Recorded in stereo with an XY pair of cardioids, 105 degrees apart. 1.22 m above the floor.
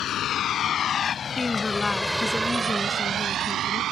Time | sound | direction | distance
0.0 | a vehicle | 65° left | ?
1.4 | a woman speaking | 20° left | ?